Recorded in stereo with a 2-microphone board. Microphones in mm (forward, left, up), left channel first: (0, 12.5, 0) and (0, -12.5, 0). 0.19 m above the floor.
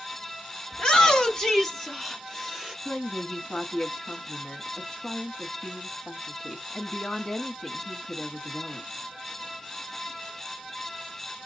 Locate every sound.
0.7 s a shout: 35° left (ahead or behind), 1.6 m; by 2.8 s 5° right (ahead or behind), 2.5 m
2.9 s a woman speaking: 40° left (ahead or behind), 1.3 m